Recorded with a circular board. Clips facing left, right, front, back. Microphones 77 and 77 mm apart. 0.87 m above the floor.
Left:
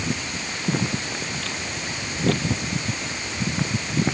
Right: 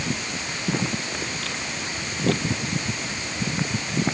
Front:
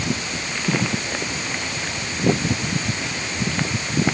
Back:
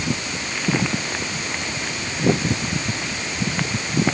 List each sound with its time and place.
Only background noise.